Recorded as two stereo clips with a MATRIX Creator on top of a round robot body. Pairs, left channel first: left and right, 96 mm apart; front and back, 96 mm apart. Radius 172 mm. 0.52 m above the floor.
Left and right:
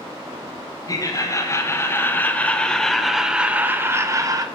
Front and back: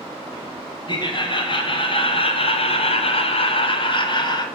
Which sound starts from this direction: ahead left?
Laughter, at 0.9 s.